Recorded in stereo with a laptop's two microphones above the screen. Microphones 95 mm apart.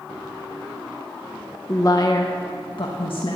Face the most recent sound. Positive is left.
turn(degrees=65)  # may be behind; listen again after turning